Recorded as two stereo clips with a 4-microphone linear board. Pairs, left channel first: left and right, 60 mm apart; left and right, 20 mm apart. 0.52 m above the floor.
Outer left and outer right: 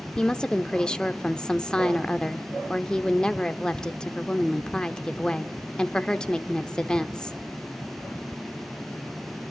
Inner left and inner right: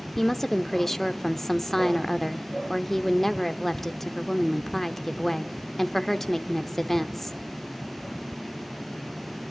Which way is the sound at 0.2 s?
10° left (ahead or behind).